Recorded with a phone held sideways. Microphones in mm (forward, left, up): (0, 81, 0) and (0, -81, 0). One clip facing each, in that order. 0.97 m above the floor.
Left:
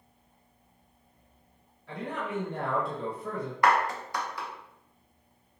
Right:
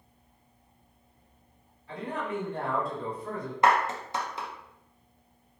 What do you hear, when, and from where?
1.9 s a man speaking: 70° left (ahead or behind), 1.1 m
3.6 s a clap: 25° right (ahead or behind), 0.6 m